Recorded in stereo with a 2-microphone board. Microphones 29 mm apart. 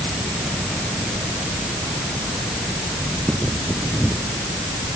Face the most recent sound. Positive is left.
No sound to turn to.